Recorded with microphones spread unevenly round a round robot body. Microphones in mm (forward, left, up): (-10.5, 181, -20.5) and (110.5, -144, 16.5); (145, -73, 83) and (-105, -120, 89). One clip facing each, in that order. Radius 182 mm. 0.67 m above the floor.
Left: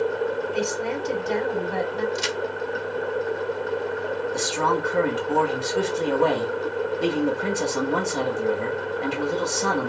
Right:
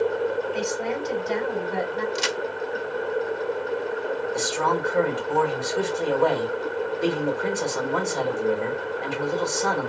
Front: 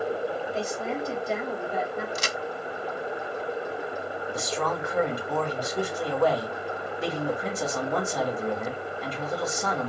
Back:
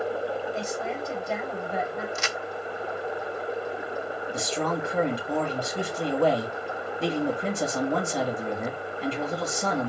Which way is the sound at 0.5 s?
70° left.